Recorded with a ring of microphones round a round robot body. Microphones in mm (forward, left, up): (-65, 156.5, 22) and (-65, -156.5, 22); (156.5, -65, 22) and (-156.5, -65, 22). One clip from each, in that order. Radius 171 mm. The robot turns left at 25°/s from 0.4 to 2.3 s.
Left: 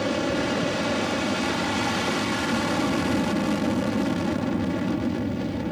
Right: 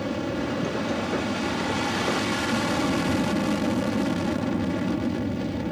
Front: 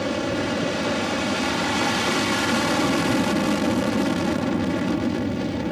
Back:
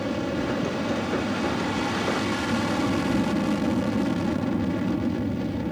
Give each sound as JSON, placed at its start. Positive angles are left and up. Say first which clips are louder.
{"t": 0.0, "sound": "an aircraft", "louder": "left 4 dB, front 3 dB", "azimuth_deg": 40}